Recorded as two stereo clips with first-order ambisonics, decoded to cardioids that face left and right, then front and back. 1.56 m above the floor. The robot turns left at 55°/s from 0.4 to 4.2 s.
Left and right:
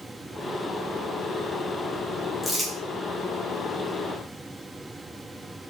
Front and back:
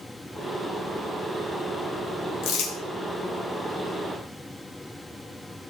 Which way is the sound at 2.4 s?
5° left.